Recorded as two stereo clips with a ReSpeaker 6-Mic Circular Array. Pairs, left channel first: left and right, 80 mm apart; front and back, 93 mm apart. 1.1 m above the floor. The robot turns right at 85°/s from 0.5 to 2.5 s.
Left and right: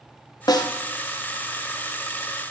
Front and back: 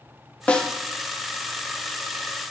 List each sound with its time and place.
0.5 s a snare drum: 75° left, 0.6 m; by 0.7 s 90° left, 0.6 m